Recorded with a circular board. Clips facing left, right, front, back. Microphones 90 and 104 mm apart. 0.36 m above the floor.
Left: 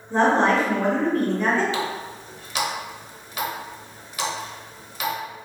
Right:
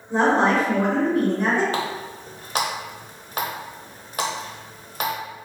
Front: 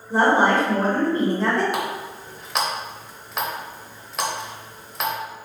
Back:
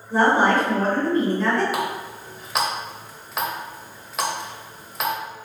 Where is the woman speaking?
30° right, 1.1 m.